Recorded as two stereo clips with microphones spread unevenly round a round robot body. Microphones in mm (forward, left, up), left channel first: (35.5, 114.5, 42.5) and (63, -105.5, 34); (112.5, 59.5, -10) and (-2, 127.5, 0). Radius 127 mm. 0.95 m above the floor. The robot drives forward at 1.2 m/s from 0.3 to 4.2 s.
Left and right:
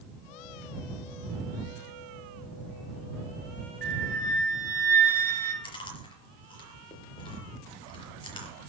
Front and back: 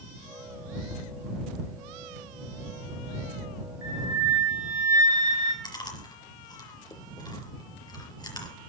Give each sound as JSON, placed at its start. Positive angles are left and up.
{"t": 3.8, "sound": "a flute", "azimuth_deg": -130, "distance_m": 1.7}
{"t": 5.6, "sound": "chewing", "azimuth_deg": 30, "distance_m": 5.0}